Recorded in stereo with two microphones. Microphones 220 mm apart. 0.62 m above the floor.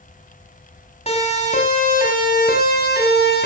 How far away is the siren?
About 6 m.